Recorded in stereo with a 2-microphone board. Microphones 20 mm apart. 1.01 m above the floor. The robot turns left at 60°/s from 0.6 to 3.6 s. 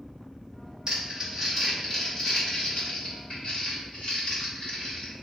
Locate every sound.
0.9 s crumpling: 50° right (ahead or behind), 1.1 m; by 5.1 s 70° left (ahead or behind), 1.1 m